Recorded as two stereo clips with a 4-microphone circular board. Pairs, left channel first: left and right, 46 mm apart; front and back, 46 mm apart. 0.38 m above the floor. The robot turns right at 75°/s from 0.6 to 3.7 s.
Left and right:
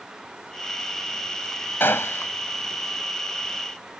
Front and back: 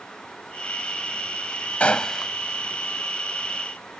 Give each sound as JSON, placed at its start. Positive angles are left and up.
{"t": 1.8, "sound": "a gunshot", "azimuth_deg": 55}